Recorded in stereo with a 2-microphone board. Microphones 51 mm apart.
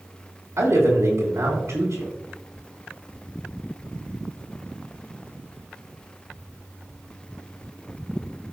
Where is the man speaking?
70° right (ahead or behind), 3 m.